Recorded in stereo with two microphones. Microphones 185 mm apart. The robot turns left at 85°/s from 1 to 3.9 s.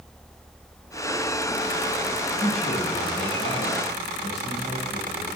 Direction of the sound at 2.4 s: 165° right.